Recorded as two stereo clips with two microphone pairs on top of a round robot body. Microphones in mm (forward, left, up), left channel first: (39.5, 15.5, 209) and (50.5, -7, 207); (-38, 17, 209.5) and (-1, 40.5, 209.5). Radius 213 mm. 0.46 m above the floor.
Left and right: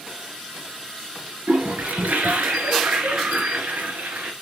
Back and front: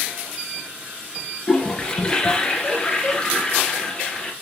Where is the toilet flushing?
80° right, 2 m.